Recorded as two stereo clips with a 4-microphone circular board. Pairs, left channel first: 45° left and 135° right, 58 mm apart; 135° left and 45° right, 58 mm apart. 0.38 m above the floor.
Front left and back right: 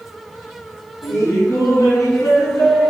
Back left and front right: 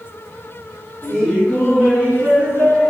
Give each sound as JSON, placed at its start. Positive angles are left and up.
{"t": 1.0, "sound": "laughter", "azimuth_deg": 65, "distance_m": 3.0}